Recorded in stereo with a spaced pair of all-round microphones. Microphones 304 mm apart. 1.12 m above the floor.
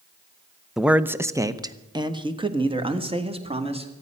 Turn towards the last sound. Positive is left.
turn(degrees=-20)  # may be behind; listen again after turning